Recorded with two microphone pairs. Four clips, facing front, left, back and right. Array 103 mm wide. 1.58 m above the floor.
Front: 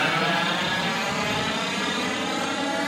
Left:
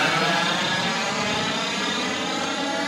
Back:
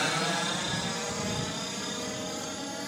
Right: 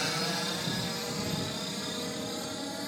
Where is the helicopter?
65° left; by 2.9 s 45° left.